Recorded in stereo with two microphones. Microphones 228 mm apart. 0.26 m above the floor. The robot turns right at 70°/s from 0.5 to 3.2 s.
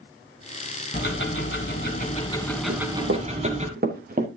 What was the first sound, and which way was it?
Ticking, 60° left.